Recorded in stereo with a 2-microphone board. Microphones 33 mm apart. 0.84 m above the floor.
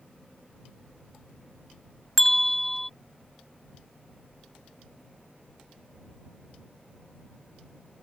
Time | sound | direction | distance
2.2 | a bell | 10° left (ahead or behind) | ?